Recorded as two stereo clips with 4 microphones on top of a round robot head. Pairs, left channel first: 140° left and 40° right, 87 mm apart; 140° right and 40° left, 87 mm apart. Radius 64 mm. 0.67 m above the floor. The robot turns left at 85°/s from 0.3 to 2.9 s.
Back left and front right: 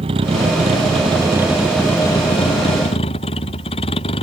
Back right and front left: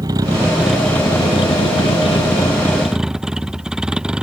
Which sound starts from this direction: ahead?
A vehicle, at 0.0 s.